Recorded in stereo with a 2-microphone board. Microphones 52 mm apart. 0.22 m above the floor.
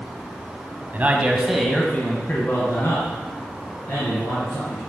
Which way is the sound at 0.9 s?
35° right (ahead or behind).